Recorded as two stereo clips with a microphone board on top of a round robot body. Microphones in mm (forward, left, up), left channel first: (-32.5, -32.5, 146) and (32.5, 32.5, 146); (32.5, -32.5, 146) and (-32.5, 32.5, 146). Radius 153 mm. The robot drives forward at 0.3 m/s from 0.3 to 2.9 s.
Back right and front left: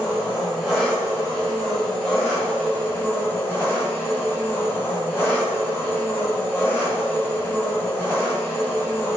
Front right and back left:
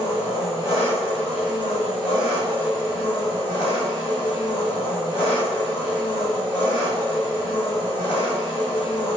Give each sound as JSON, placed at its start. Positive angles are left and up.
{"t": 0.0, "sound": "an engine running", "azimuth_deg": -40, "distance_m": 1.8}